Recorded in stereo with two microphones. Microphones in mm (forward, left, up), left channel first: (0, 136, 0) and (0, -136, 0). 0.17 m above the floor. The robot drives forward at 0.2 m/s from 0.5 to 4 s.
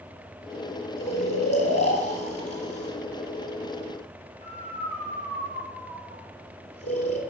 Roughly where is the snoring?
Left.